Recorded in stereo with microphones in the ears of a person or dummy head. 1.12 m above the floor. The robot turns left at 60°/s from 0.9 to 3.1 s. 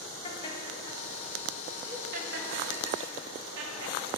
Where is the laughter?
30° left (ahead or behind), 1.6 m; by 4.0 s 70° right (ahead or behind), 1.6 m.